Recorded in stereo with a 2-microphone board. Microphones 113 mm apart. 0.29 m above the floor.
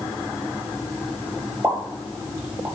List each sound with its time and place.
1.6 s a pop: 20° right (ahead or behind), 1.1 m